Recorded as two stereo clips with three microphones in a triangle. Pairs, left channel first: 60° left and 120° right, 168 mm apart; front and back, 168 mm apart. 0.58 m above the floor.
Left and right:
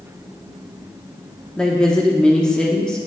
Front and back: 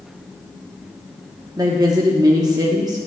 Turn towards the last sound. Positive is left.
turn(degrees=140)